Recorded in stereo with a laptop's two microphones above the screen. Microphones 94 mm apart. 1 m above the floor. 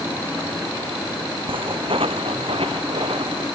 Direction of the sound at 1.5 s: 70° right (ahead or behind).